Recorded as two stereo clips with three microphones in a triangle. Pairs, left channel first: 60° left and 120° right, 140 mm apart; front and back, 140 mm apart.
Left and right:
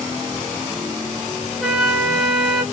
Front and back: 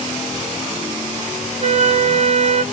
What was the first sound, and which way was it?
A flute, 150° left.